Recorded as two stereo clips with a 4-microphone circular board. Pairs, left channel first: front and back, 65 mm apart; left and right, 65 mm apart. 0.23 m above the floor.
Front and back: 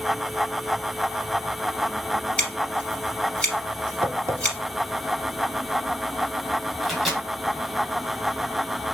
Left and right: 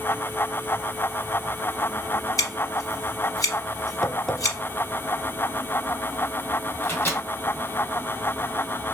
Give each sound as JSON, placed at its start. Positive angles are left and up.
{"t": 2.4, "sound": "scissors", "azimuth_deg": 70, "distance_m": 2.5}
{"t": 4.0, "sound": "tapping", "azimuth_deg": 175, "distance_m": 0.5}
{"t": 6.8, "sound": "a microwave", "azimuth_deg": 95, "distance_m": 1.3}